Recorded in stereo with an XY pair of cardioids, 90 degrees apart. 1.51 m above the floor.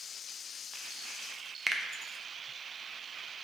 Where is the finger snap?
15° right, 0.5 m.